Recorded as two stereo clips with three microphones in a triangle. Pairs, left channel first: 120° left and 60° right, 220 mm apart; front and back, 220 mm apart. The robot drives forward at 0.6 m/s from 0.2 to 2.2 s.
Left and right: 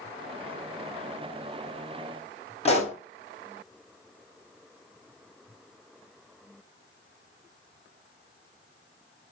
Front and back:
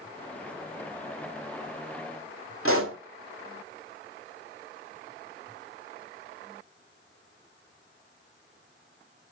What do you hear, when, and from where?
2.6 s a pop: straight behind, 2 m